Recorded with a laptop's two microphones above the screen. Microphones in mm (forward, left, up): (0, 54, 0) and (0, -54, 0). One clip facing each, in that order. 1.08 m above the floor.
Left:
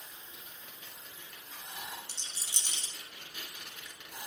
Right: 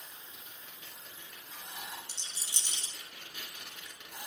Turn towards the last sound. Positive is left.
turn(degrees=60)  # may be behind; listen again after turning